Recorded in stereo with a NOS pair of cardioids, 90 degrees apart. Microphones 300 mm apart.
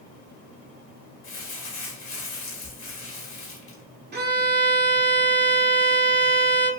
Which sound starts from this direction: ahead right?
A violin, at 4.1 s.